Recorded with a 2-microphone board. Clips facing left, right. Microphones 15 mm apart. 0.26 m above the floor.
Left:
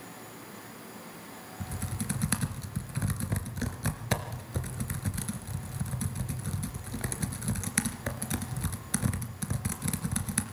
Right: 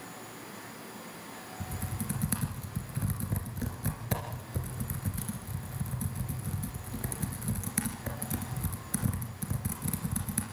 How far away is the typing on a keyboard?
About 2 m.